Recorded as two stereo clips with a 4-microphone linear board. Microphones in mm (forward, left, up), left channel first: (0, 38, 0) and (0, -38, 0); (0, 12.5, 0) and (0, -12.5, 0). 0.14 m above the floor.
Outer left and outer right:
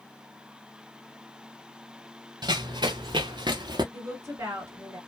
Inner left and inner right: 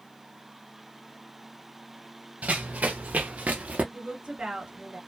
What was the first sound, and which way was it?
Running footsteps, 70° right (ahead or behind).